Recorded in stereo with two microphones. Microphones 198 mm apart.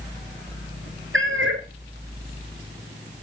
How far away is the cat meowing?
About 1.8 m.